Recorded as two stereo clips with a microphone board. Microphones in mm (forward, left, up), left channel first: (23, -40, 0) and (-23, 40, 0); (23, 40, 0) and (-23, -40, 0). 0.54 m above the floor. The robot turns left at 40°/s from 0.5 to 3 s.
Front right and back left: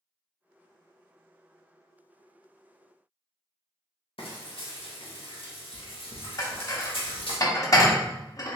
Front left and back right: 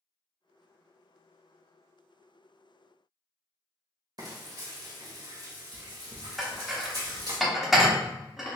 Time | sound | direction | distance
4.2 | frying | 75° right | 0.8 m
6.4 | dishes clattering | 35° right | 0.7 m